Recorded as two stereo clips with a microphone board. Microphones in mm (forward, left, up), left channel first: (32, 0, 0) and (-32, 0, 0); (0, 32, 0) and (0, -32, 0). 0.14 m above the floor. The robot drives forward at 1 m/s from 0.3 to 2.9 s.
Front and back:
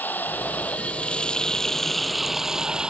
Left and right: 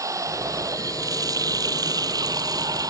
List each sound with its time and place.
0.0 s running water: 60° right; by 2.9 s 105° right